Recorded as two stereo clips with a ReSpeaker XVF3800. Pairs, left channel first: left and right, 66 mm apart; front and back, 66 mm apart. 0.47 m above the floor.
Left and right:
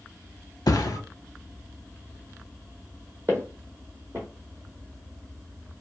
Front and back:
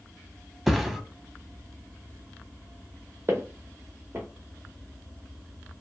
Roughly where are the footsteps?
Behind right.